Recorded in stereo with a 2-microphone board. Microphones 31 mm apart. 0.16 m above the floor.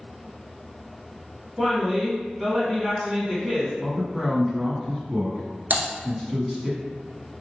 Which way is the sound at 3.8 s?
10° right (ahead or behind).